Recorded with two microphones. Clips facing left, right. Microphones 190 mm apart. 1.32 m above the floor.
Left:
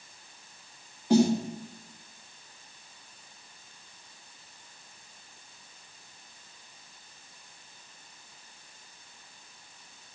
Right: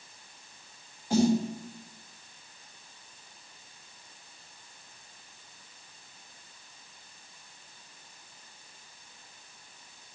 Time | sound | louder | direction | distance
1.1 | a snare drum | left 2 dB | 75° left (ahead or behind) | 3 m